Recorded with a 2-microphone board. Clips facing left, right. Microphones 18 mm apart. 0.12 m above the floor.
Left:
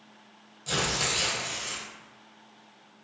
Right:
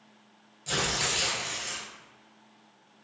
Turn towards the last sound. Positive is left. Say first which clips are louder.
# left 1 dB
turn(degrees=0)  # may be behind; listen again after turning